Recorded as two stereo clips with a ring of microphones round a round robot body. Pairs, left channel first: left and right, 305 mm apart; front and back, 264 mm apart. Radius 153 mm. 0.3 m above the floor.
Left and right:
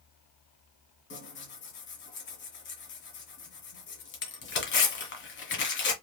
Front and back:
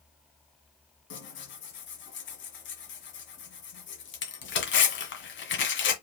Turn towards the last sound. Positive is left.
turn(degrees=40)